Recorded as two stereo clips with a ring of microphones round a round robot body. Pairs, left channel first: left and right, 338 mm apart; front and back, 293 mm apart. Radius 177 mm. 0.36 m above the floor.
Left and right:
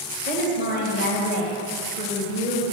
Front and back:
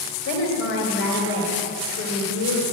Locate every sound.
0.2 s a woman speaking: 40° left, 2.0 m